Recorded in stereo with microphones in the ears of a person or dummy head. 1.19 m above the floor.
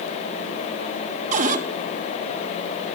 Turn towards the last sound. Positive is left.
turn(degrees=-45)  # may be behind; listen again after turning